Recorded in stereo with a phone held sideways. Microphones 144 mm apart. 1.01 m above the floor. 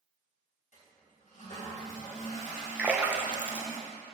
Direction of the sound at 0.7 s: 60° left (ahead or behind).